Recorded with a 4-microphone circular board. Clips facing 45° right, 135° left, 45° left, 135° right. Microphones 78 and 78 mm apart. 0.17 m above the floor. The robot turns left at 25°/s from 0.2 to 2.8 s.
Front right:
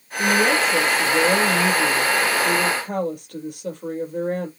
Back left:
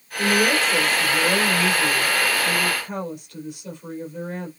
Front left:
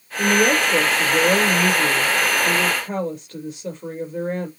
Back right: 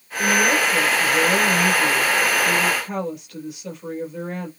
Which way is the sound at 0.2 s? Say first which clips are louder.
Front right 1 dB, front left 1 dB; 50° left.